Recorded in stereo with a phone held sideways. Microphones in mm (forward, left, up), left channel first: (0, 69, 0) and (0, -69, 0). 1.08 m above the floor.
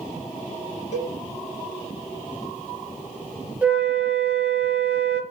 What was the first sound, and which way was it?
A cowbell, 60° left (ahead or behind).